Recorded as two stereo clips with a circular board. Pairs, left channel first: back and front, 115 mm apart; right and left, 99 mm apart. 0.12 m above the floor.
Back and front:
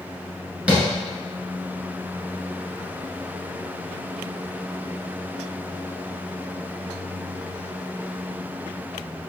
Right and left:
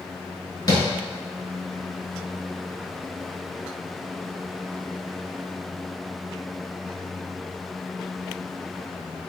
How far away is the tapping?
About 1.4 m.